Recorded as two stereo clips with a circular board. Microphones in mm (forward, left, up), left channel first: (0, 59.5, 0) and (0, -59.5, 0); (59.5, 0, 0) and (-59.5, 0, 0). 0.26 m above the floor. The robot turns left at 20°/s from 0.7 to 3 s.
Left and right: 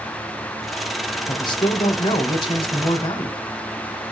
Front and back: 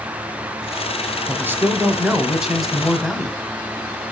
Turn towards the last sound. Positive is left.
turn(degrees=85)